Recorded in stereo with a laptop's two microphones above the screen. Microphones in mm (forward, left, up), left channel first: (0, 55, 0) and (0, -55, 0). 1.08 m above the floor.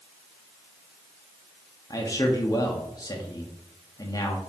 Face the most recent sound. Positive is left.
turn(degrees=35)  # may be behind; listen again after turning